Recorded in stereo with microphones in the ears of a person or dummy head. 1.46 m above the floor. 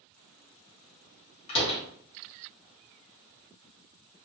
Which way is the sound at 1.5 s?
40° left (ahead or behind).